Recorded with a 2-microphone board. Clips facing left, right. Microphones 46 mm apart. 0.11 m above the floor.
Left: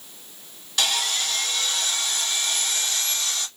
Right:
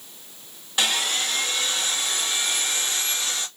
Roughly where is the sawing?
Right.